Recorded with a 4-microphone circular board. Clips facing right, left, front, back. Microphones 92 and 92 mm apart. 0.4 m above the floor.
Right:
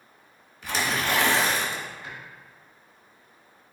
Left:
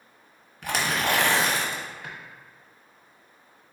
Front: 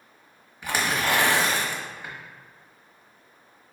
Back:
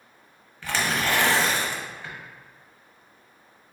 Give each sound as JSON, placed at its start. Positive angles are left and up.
{"t": 0.6, "sound": "tearing paper", "azimuth_deg": 75, "distance_m": 1.0}